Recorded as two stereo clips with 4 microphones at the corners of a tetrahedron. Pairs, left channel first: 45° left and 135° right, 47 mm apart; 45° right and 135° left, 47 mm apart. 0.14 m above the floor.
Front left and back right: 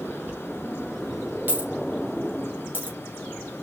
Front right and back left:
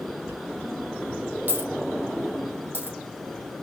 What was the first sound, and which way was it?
A dropped coin, straight behind.